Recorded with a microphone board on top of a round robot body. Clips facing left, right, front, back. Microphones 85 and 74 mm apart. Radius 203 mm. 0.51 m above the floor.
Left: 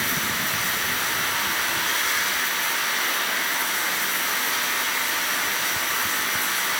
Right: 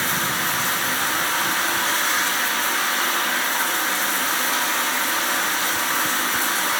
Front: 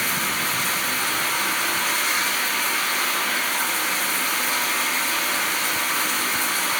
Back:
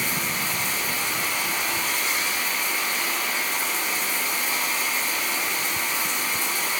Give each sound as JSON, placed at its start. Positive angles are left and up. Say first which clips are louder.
{"t": 0.0, "sound": "running water", "louder": "right 3 dB, front 3 dB", "azimuth_deg": -35, "distance_m": 0.8}